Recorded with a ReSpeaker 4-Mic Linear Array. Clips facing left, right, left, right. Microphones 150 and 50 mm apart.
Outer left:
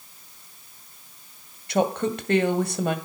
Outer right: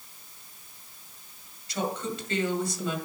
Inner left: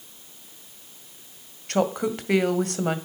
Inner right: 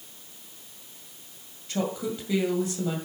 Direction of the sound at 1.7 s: 60° left (ahead or behind).